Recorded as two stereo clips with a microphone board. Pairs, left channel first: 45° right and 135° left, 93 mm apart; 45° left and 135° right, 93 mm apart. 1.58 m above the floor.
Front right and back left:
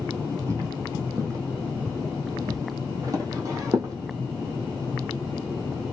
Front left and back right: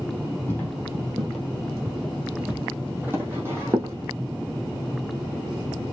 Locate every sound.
0.5 s footsteps: 100° left, 2.0 m; by 3.9 s 175° left, 2.5 m